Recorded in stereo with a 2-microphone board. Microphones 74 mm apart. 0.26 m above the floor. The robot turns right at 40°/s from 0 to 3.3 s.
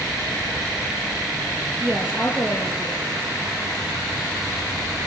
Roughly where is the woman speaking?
Ahead right.